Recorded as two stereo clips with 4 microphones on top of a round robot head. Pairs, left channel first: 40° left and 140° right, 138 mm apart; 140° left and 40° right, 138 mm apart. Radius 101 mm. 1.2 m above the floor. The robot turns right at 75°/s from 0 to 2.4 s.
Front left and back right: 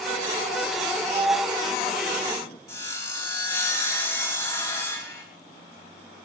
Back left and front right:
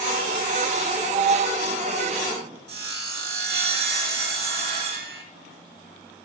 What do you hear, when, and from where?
1.1 s a sliding door: 85° right, 0.8 m; by 2.6 s 15° left, 0.8 m
2.7 s sawing: 30° right, 3 m